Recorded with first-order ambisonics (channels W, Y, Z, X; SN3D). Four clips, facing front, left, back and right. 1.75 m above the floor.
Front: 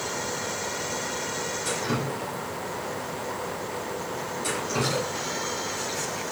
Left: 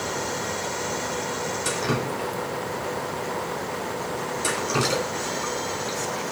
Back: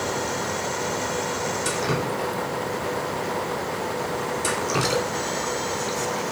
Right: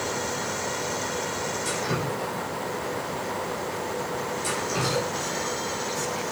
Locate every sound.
1.6 s dripping: 140° left, 1.8 m